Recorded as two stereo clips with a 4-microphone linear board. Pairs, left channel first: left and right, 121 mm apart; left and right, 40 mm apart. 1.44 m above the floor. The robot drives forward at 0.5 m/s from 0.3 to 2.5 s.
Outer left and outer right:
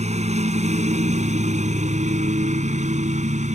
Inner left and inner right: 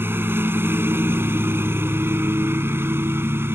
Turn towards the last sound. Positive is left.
turn(degrees=-75)  # may be behind; listen again after turning